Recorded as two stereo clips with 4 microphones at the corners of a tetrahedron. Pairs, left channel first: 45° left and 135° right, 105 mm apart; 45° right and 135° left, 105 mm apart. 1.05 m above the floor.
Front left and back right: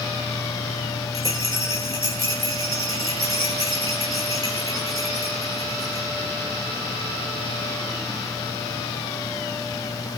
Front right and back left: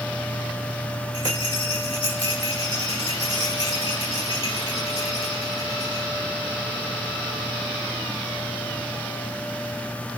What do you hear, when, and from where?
1.1 s a rattle: 80° right, 7 m